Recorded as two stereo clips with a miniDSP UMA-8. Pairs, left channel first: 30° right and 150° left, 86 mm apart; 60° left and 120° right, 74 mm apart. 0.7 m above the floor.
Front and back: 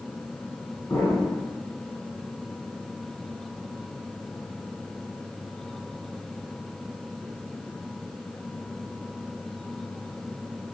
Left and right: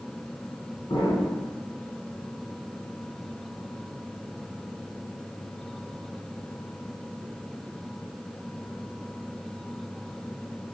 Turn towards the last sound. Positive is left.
turn(degrees=35)